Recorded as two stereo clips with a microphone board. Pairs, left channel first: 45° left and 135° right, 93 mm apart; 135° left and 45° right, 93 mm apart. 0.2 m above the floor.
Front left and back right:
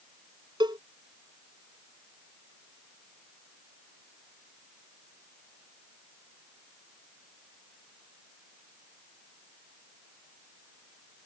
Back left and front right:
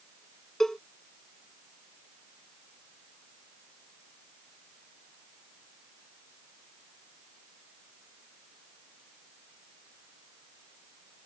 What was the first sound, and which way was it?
A cowbell, 140° right.